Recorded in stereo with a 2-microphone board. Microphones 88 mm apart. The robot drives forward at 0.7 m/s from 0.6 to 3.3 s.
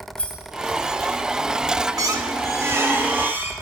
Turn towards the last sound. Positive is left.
turn(degrees=-25)  # may be behind; listen again after turning